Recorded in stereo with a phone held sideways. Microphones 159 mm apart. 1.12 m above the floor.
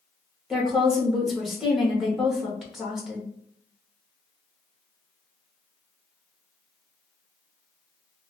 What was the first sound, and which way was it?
A woman speaking, centre (ahead or behind).